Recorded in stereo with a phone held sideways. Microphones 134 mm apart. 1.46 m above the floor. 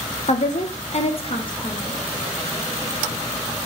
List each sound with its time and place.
0.3 s a woman speaking: 55° left (ahead or behind), 0.6 m; by 2.0 s 35° left (ahead or behind), 1.5 m